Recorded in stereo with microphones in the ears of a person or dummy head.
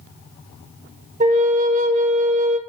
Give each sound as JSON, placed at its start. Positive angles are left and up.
{"t": 1.2, "sound": "a flute", "side_deg": -35, "distance_m": 0.6}